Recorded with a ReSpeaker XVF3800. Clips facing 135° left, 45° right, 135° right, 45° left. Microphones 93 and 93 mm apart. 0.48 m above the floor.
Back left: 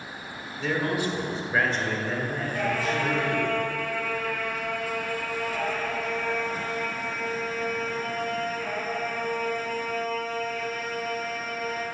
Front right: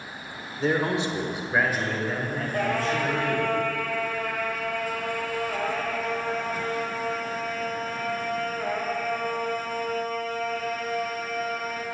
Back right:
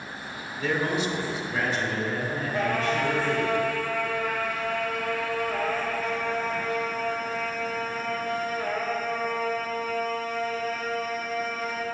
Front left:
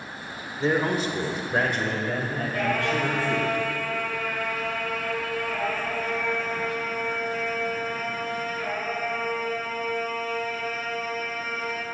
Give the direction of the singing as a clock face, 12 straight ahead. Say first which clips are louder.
Front right 2 dB, even; 3 o'clock.